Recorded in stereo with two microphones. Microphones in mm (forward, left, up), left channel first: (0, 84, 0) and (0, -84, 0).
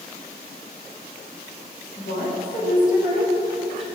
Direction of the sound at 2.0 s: 65° left (ahead or behind).